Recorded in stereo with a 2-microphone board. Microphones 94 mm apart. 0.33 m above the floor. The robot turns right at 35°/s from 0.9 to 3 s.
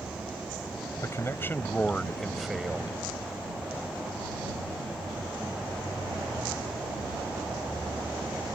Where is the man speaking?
135° left; by 2.9 s 160° right.